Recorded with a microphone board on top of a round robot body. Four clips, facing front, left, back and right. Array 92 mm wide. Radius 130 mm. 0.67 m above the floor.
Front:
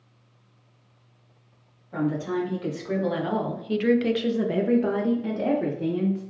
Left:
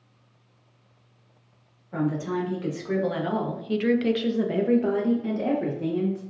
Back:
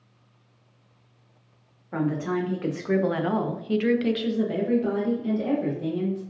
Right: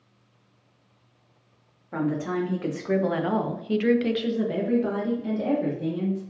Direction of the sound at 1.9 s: 140° right.